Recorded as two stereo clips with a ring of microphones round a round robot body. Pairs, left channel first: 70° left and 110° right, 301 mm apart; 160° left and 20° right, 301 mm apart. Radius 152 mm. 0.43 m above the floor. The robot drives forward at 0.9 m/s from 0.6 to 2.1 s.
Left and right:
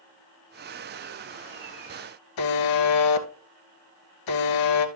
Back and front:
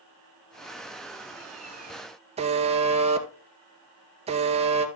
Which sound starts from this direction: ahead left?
A buzzer, at 2.4 s.